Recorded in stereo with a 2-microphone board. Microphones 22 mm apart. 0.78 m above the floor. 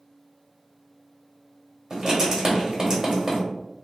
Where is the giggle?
I don't hear a giggle.